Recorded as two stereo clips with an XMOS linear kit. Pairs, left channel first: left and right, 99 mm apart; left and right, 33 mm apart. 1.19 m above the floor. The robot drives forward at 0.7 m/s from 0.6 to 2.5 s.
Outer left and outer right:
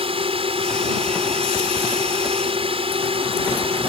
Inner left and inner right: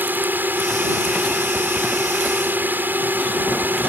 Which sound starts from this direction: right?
A drone, at 0.0 s.